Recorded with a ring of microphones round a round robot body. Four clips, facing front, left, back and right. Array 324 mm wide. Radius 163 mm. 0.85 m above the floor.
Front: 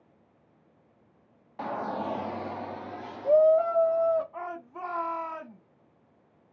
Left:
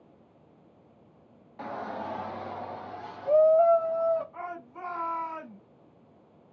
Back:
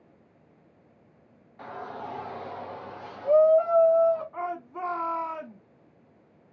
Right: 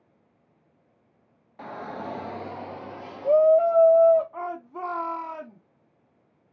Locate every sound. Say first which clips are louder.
1.6 s a shout: even, front 6 dB; 5° left, 0.8 m; by 4.2 s 65° right, 2.5 m
4.3 s a shout: right 5 dB, back 4 dB; 110° right, 1.8 m